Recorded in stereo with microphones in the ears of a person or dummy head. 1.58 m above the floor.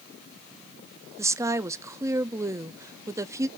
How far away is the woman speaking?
About 0.5 m.